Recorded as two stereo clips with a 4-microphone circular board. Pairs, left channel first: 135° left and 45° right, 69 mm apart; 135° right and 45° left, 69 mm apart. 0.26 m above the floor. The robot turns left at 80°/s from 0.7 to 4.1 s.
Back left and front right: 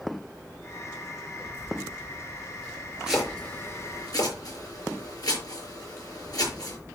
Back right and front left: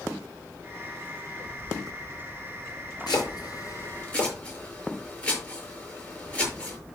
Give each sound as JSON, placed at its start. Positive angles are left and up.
{"t": 3.1, "sound": "chopping", "azimuth_deg": -125, "distance_m": 6.0}